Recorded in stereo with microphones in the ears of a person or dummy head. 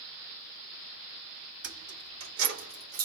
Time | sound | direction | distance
1.6 | keys jangling | 85° right | 3.5 m